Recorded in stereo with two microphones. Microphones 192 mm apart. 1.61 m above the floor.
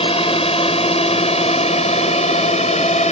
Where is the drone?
30° left (ahead or behind); by 3.1 s 35° left (ahead or behind).